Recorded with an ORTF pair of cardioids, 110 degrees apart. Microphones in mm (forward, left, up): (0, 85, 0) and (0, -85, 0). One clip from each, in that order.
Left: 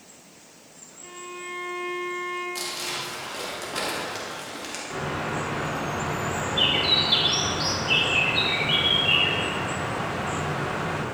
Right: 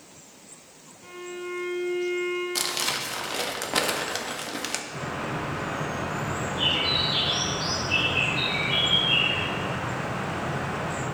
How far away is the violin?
About 2.5 m.